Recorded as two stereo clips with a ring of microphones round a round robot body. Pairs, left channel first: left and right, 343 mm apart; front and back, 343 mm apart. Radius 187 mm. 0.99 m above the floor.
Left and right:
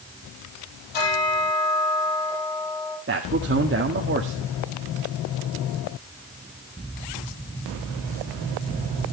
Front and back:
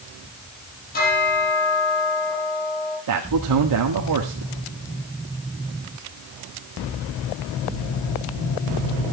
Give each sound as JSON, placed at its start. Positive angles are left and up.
{"t": 0.9, "sound": "a bell", "azimuth_deg": 70, "distance_m": 7.0}
{"t": 3.1, "sound": "a man speaking", "azimuth_deg": -150, "distance_m": 1.8}